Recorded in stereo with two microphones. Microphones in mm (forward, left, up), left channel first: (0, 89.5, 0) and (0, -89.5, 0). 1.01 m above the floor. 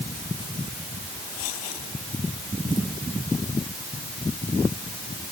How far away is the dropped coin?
I don't hear a dropped coin.